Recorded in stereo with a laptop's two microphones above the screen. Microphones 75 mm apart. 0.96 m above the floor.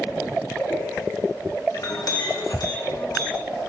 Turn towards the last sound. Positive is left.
turn(degrees=60)  # may be behind; listen again after turning